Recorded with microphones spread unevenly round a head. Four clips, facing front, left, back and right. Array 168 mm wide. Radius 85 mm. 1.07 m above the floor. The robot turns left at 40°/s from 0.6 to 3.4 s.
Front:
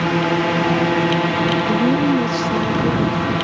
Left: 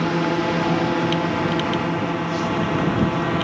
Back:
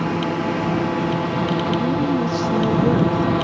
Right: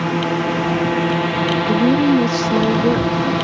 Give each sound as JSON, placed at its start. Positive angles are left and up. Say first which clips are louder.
{"t": 0.0, "sound": "a drone", "louder": "right 1 dB, front 4 dB", "azimuth_deg": -20}
{"t": 1.7, "sound": "a woman speaking", "louder": "right 9 dB, front 5 dB", "azimuth_deg": -55}